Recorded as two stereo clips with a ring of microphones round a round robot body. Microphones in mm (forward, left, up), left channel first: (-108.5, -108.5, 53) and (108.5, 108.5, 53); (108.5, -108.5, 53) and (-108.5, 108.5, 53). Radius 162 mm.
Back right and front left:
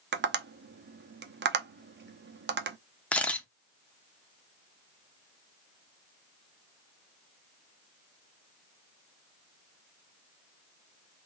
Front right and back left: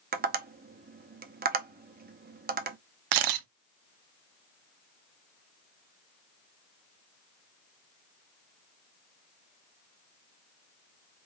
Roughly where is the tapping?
Left.